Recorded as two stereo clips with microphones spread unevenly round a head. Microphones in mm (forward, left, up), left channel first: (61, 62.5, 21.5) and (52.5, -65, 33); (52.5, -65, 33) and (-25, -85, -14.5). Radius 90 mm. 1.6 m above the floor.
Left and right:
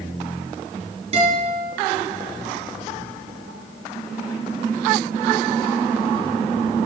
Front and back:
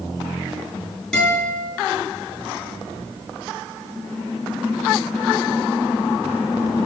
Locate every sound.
1.1 s a guitar: 60° right, 5.5 m